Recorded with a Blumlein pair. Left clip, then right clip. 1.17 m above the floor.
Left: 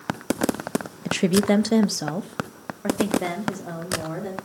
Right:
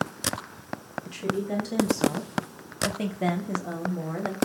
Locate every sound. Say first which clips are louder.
1.1 s a woman speaking: left 9 dB; 60° left, 1.0 m; by 4.3 s straight ahead, 3.5 m